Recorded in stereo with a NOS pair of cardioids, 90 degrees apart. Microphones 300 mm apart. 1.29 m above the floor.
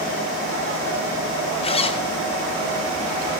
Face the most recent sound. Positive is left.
turn(degrees=20)